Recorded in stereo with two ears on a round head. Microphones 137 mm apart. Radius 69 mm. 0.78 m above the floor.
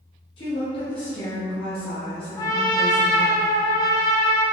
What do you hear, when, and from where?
0.4 s a woman speaking: 35° left (ahead or behind), 0.8 m
2.4 s a trumpet: 25° left (ahead or behind), 0.6 m